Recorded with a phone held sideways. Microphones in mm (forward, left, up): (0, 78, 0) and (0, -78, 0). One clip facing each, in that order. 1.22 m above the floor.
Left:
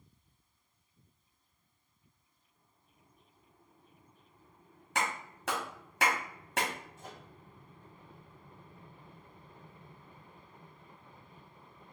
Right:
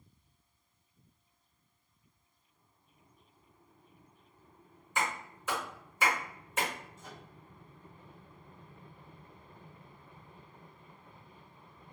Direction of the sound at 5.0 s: 80° left.